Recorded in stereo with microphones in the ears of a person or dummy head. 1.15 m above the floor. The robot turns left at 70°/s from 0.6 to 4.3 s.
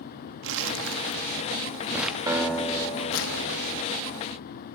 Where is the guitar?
165° right, 2 m; by 3.8 s 90° left, 2 m.